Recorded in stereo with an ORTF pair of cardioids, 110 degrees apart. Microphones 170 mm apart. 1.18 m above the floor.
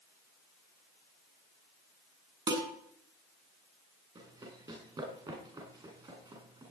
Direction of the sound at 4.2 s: 30° right.